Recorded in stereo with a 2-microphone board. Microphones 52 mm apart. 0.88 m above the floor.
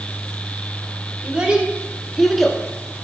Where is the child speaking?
25° right (ahead or behind), 1.8 m; by 2.6 s 10° left (ahead or behind), 0.9 m.